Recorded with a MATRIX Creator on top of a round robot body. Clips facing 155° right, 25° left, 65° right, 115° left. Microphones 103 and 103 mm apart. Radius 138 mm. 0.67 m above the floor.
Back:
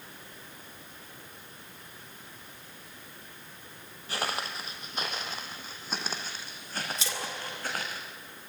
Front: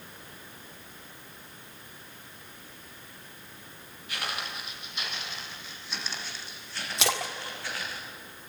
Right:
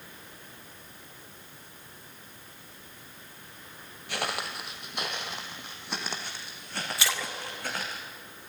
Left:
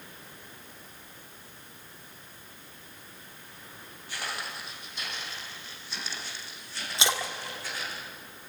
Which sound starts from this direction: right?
Footsteps, at 4.1 s.